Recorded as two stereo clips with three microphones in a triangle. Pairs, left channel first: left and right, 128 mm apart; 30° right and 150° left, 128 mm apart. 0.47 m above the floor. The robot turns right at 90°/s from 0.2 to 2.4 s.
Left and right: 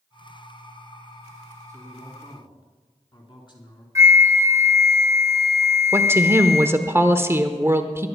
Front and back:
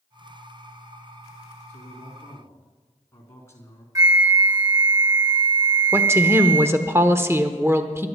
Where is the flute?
150° right, 1.2 m.